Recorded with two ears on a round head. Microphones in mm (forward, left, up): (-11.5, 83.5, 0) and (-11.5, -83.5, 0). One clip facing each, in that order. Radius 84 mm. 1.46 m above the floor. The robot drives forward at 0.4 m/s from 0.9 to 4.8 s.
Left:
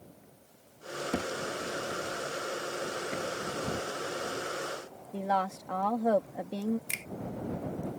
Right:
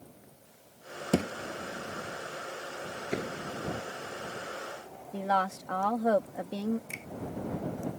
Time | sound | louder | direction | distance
1.1 | a thud | right 6 dB | 45° right (ahead or behind) | ?
3.1 | a door slam | even | 55° right (ahead or behind) | ?
5.1 | a woman speaking | right 1 dB | centre (ahead or behind) | ?
6.9 | a finger snap | right 1 dB | 70° left (ahead or behind) | ?